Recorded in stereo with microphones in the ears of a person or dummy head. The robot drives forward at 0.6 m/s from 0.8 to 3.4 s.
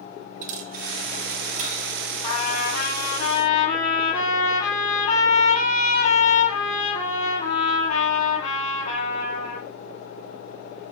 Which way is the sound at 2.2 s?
40° left (ahead or behind).